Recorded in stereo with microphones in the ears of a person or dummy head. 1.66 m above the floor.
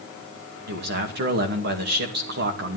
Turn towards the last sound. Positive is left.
turn(degrees=-55)  # may be behind; listen again after turning